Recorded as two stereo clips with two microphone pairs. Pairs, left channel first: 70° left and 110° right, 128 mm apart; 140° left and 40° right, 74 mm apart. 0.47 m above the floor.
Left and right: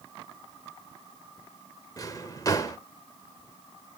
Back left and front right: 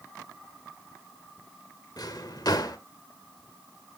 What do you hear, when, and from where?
2.0 s a drawer: 125° left, 1.0 m